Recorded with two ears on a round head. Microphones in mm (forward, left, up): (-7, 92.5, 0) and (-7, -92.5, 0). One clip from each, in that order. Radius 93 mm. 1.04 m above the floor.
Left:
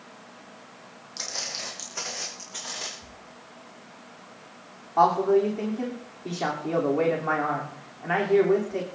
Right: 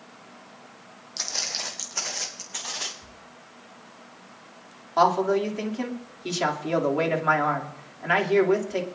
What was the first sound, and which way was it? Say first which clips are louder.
Footsteps: right 3 dB; 20° right (ahead or behind).